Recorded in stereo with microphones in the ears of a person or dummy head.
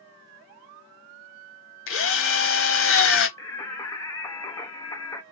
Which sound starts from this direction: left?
A drill, at 1.9 s.